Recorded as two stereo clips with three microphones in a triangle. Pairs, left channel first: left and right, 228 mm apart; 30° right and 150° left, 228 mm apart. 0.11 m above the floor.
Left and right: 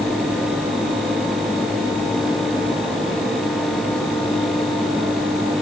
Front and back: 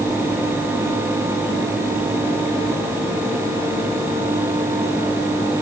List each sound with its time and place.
Only background noise.